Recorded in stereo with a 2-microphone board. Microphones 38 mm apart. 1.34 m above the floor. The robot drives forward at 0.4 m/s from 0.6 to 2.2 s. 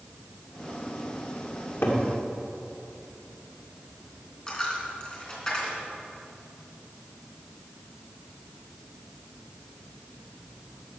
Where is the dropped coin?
20° left (ahead or behind), 3 m.